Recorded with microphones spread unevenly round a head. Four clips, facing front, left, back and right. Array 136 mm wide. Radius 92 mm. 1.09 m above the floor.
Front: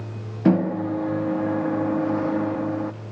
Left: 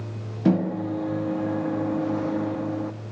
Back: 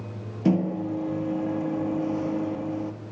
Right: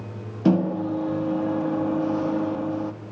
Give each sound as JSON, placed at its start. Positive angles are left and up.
{"t": 0.5, "sound": "a microwave", "azimuth_deg": -25, "distance_m": 1.5}